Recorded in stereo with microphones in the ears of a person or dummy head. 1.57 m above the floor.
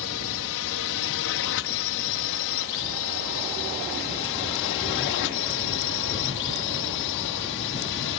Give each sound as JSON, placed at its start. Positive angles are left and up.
{"t": 0.0, "sound": "a drone", "side_deg": 65}